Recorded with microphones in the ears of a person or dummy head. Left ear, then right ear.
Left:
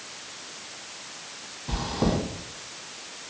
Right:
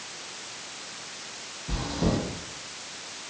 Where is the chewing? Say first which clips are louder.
Left 2 dB; 55° left (ahead or behind), 2.0 m.